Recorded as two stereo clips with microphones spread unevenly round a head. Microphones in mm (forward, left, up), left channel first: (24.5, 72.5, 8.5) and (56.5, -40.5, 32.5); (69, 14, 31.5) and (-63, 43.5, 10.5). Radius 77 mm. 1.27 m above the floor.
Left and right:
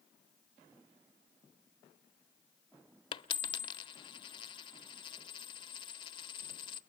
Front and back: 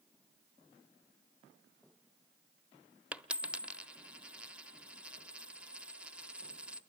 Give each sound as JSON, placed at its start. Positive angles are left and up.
{"t": 3.1, "sound": "a dropped coin", "azimuth_deg": 80, "distance_m": 0.9}